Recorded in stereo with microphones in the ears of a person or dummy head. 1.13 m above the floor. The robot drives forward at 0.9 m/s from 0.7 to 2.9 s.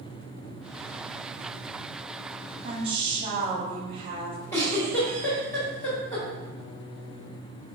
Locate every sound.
2.6 s a woman speaking: 30° right (ahead or behind), 1.0 m; by 4.4 s 25° right (ahead or behind), 1.1 m
4.5 s a giggle: 15° left (ahead or behind), 1.3 m